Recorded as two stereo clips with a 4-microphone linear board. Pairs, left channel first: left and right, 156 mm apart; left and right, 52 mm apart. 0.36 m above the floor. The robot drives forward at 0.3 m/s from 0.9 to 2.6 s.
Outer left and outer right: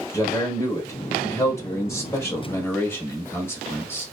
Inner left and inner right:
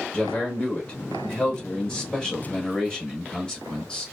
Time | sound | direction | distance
0.1 | a man speaking | 20° left (ahead or behind) | 0.9 m